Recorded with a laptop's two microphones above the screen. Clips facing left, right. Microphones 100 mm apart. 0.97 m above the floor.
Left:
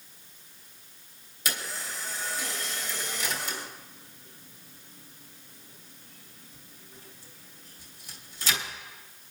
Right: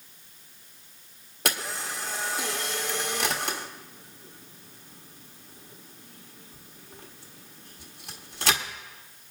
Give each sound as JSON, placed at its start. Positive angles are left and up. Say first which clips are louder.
{"t": 1.4, "sound": "a camera shutter", "louder": "right 4 dB", "side_deg": -70, "distance_m": 1.2}